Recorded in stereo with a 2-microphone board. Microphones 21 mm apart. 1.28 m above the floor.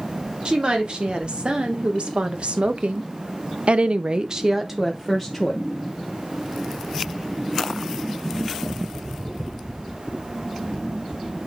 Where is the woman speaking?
50° right (ahead or behind), 2.5 m; by 5.6 s 5° left (ahead or behind), 1.2 m.